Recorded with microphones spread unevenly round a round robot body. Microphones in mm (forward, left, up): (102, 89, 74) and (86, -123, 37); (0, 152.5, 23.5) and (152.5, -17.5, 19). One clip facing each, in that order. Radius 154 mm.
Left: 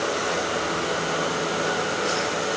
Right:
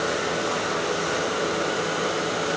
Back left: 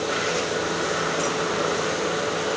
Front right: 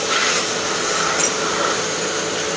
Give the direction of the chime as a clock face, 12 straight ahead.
No chime in this recording.